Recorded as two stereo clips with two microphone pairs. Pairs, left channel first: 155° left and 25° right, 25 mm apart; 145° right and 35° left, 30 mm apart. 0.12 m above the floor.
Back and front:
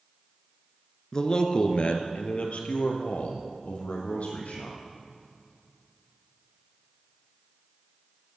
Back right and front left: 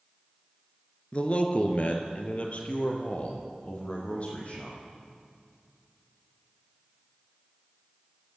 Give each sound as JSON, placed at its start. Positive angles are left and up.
{"t": 1.1, "sound": "a man speaking", "azimuth_deg": -165, "distance_m": 1.3}